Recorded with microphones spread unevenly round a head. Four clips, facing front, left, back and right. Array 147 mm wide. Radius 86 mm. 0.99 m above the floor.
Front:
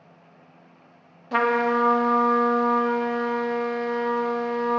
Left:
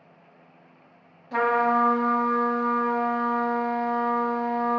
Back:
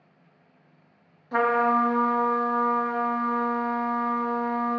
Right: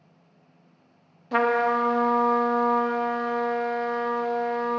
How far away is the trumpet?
About 0.9 m.